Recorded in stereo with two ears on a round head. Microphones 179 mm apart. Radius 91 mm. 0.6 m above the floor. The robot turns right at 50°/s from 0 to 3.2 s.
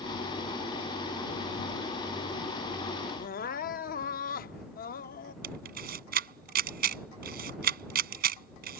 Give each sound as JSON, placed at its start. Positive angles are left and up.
{"t": 3.2, "sound": "crying", "side_deg": 45}
{"t": 5.4, "sound": "a camera shutter", "side_deg": -50}